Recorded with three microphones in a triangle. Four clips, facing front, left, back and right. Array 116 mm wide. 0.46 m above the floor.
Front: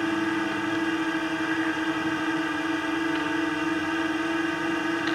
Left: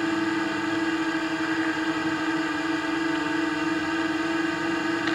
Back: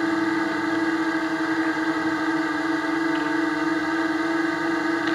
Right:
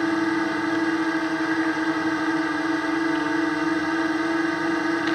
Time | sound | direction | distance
0.0 | a drone | 135° right | ?